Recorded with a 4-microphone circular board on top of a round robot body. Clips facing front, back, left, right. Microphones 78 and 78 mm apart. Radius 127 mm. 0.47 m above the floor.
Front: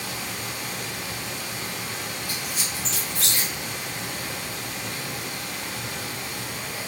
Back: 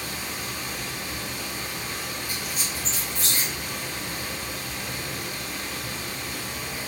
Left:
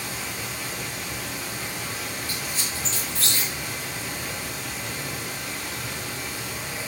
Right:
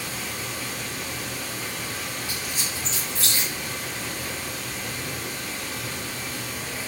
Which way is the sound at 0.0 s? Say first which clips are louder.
Front 1 dB, even; 5° left.